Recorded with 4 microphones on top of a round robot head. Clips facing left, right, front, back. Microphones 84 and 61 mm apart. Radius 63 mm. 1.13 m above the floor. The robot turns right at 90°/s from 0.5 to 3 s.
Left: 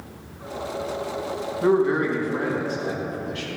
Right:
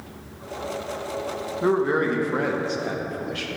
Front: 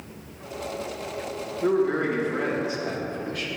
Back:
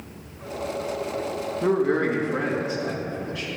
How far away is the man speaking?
About 1.3 m.